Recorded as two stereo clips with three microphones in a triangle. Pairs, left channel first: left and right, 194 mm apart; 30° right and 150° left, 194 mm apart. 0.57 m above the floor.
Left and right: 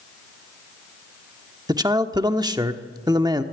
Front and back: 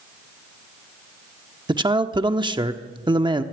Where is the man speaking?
150° right, 1.0 m.